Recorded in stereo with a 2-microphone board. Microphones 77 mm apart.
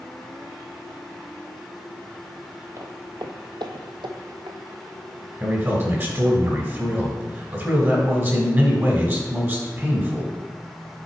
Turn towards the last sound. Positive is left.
turn(degrees=-30)  # may be behind; listen again after turning